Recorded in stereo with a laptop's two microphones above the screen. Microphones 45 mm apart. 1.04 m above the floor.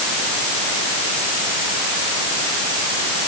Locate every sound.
Only background noise.